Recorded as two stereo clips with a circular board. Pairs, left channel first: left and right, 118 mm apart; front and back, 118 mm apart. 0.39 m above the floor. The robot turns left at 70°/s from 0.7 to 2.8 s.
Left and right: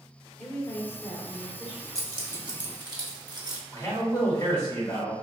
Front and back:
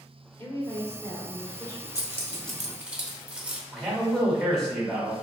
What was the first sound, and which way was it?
A woman speaking, 45° left.